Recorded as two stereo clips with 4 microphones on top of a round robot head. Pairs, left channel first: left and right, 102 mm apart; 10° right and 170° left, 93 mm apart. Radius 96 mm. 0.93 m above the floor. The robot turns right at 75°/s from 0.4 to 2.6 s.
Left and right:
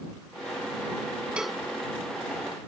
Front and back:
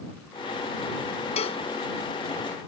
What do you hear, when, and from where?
1.4 s a cowbell: 10° right; by 1.6 s 10° left